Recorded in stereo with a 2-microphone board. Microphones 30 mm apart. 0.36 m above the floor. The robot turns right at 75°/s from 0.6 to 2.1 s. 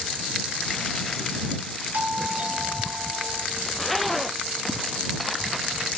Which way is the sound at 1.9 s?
55° right (ahead or behind).